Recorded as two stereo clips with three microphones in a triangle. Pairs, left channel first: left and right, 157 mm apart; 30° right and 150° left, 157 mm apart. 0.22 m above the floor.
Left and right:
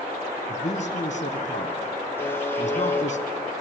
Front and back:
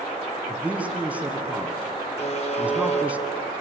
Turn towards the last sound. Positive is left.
turn(degrees=15)